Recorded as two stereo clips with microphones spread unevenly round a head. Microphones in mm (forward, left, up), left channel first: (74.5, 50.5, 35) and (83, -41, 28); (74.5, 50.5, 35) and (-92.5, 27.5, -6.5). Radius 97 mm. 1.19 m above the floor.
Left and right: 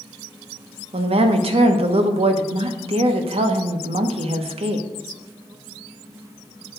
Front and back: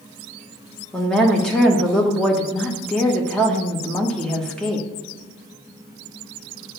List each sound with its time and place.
0.9 s a woman speaking: 80° right, 1.0 m